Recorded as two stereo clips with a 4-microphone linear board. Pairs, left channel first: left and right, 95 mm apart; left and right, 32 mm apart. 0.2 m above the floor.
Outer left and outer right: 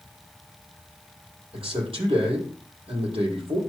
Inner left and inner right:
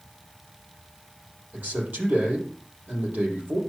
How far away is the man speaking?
About 6.5 m.